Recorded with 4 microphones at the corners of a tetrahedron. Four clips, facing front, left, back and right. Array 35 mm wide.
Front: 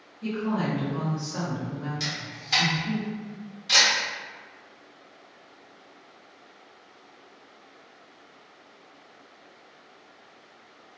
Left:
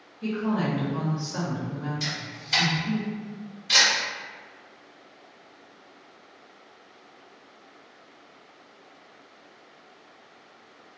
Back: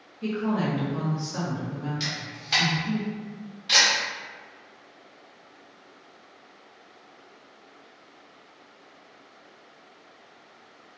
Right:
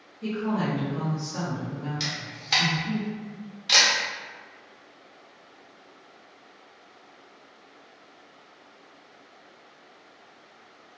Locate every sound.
0.2 s a woman speaking: 165° left, 1.1 m; by 3.0 s 25° left, 1.2 m
2.0 s a camera shutter: 105° right, 1.2 m